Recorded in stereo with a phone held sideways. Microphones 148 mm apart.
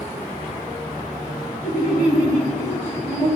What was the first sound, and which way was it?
Laughter, 65° left (ahead or behind).